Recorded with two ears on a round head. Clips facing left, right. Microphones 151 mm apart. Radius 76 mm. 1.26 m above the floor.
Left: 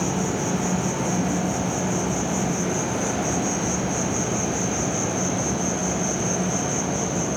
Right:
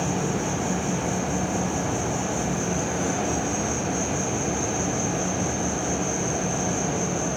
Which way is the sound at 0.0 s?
70° left (ahead or behind).